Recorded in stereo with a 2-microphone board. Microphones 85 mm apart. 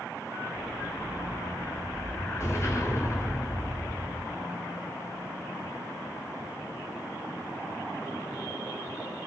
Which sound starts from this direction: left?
An explosion, at 0.6 s.